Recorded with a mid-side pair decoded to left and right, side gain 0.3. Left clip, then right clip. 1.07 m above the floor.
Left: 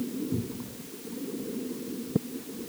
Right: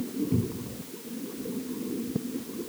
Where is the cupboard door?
50° right.